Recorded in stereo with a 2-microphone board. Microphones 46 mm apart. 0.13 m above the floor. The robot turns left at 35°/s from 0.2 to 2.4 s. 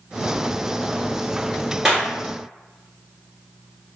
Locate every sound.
1.9 s a clap: 5° right (ahead or behind), 1.5 m; by 2.1 s 10° right (ahead or behind), 1.5 m